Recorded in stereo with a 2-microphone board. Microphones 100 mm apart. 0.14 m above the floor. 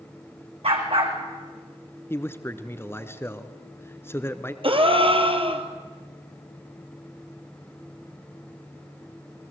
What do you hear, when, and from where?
0.6 s a dog barking: 70° right (ahead or behind), 3.5 m
2.1 s a man speaking: 25° left (ahead or behind), 1.5 m
4.6 s a gasp: 65° right (ahead or behind), 2.0 m